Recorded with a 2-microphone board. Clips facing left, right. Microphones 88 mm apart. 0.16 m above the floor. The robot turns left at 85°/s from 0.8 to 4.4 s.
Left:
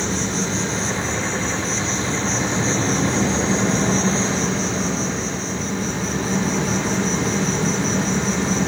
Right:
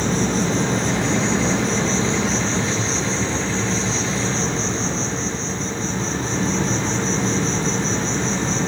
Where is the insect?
45° right, 0.9 m; by 8.7 s 5° left, 0.9 m.